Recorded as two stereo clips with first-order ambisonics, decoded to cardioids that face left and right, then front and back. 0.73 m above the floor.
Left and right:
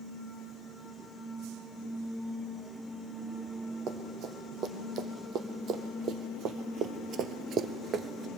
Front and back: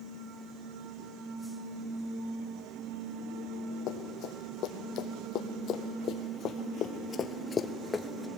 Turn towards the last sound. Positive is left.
turn(degrees=-85)